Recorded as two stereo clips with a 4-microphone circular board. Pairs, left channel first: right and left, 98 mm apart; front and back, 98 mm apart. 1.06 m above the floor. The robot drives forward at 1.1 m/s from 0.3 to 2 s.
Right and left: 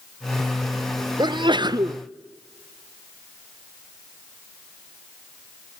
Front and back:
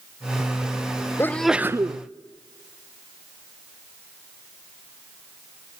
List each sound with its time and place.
1.2 s a sneeze: 60° left, 0.7 m; by 2.0 s 140° left, 0.9 m